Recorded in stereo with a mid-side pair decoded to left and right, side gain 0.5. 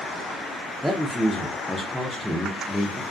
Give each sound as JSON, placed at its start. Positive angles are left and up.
{"t": 0.8, "sound": "a man speaking", "azimuth_deg": 5, "distance_m": 0.5}